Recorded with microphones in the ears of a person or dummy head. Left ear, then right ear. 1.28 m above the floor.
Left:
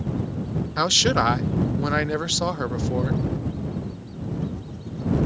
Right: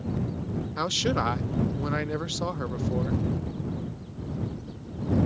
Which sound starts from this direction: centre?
A man speaking, at 0.8 s.